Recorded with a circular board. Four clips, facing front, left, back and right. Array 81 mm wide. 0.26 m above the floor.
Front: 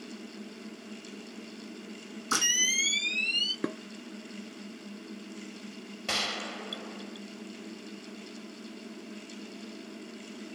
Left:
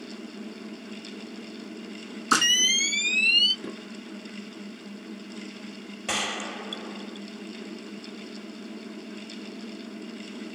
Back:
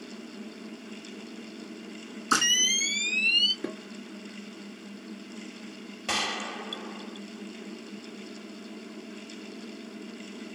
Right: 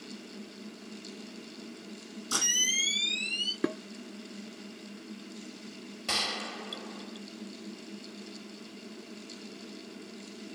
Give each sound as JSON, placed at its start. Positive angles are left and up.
{"t": 2.3, "sound": "a camera shutter", "azimuth_deg": 105, "distance_m": 3.0}
{"t": 3.6, "sound": "dishes clattering", "azimuth_deg": -55, "distance_m": 2.0}
{"t": 6.1, "sound": "a gunshot", "azimuth_deg": 105, "distance_m": 0.9}